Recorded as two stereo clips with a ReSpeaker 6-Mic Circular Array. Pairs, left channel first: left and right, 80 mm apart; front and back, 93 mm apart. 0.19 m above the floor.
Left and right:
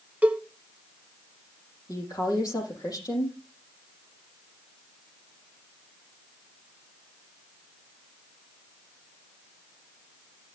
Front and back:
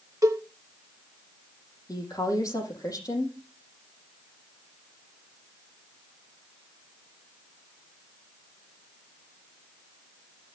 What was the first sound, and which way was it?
A cowbell, 155° right.